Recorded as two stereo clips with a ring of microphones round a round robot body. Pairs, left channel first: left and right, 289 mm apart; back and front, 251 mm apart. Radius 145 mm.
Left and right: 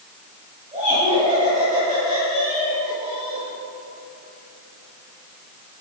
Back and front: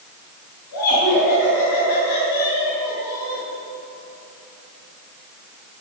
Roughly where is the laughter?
Behind.